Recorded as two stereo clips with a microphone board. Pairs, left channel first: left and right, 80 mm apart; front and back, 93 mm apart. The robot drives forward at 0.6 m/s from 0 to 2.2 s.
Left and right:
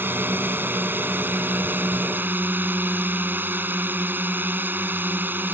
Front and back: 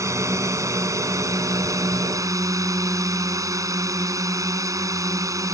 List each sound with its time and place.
0.0 s a drone: 140° right; by 5.5 s 145° right